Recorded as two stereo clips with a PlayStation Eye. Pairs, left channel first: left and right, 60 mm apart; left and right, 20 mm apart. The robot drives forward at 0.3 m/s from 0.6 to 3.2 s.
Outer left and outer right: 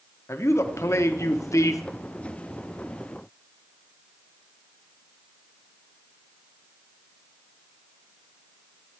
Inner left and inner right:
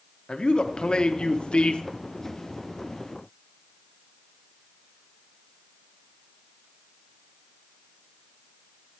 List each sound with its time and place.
0.3 s a man speaking: 50° left (ahead or behind), 1.0 m; by 1.8 s 60° left (ahead or behind), 0.9 m